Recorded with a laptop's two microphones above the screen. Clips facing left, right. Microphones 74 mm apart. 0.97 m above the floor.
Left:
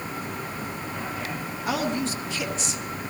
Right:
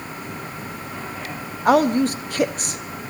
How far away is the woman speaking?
About 1.3 m.